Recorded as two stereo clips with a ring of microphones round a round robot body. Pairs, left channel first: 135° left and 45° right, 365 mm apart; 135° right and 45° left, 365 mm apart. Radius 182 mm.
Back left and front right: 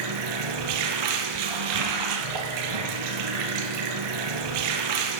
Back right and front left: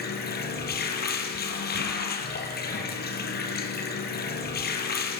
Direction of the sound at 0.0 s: 70° right.